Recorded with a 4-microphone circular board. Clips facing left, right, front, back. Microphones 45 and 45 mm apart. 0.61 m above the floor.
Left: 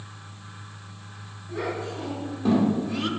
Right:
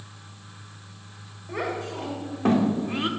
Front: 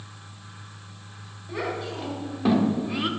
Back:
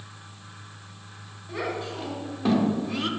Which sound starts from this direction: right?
A child speaking, at 1.5 s.